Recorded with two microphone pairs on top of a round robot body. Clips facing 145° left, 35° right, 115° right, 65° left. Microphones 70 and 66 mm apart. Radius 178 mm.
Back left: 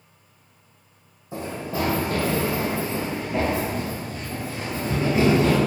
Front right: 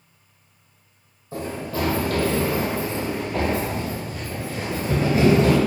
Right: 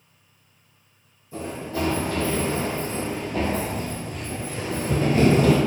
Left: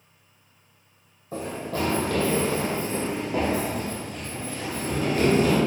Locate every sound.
1.3 s running footsteps: 75° left, 2.0 m; by 5.6 s 105° right, 1.2 m